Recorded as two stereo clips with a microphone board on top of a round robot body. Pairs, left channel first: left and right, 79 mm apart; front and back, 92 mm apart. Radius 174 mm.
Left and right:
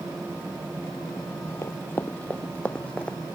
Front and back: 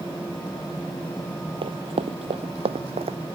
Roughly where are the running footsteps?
Behind left.